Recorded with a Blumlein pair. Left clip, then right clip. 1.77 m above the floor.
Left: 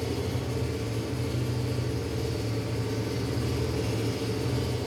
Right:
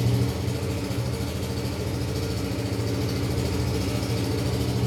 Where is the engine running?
35° right, 4 m.